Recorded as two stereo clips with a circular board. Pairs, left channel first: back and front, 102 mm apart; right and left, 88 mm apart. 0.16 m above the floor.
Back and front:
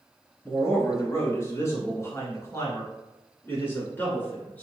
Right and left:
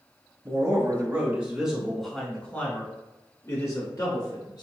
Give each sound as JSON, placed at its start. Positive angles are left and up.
{"t": 0.5, "sound": "a man speaking", "azimuth_deg": 125, "distance_m": 1.7}